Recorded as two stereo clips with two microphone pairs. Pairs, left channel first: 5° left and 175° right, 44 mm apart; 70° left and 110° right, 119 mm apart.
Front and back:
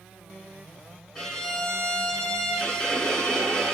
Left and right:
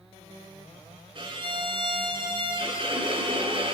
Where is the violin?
70° right, 4.5 m.